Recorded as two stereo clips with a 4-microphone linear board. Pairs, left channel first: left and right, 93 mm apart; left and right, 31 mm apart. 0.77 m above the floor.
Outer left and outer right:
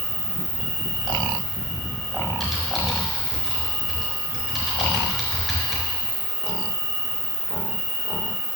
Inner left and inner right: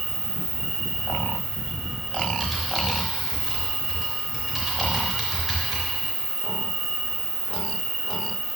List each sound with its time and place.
0.0 s an insect: 10° right (ahead or behind), 3.5 m
2.4 s typing on a keyboard: 5° right (ahead or behind), 4 m